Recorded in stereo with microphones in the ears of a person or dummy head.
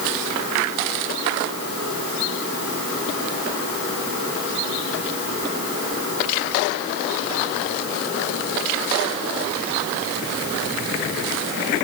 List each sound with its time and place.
Only background noise.